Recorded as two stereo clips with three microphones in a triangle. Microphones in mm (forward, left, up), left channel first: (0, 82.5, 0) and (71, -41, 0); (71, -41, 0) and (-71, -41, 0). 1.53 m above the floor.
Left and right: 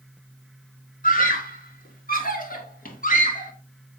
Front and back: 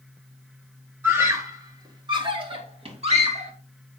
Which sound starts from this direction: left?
A scream, at 1.0 s.